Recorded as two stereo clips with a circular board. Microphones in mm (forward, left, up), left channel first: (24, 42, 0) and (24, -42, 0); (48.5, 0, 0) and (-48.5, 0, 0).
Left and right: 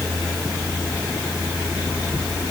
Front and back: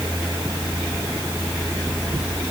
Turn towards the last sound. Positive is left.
No sound to turn to.